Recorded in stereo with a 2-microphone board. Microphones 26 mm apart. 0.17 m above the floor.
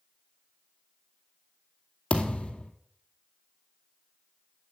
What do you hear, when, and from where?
2.1 s a thud: 45° left (ahead or behind), 1.9 m